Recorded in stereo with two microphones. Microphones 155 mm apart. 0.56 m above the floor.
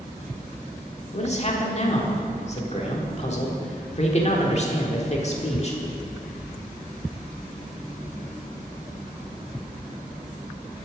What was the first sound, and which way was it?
A man speaking, 45° left (ahead or behind).